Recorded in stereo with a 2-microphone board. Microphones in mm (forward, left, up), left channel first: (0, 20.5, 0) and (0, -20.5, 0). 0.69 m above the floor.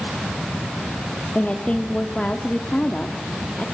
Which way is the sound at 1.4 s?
30° left (ahead or behind).